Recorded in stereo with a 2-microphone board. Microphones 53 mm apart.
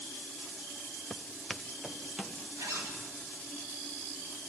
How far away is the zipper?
About 6 m.